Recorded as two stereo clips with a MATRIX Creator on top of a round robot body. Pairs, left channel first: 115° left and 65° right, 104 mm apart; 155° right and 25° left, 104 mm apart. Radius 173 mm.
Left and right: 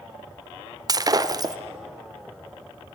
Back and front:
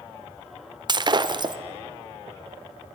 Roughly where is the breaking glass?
Ahead.